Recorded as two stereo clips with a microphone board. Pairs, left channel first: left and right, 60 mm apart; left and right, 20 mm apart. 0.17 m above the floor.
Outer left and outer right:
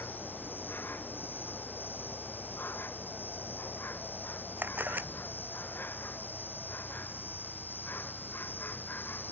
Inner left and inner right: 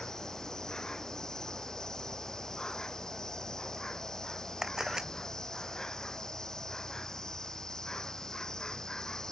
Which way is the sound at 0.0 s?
30° left (ahead or behind).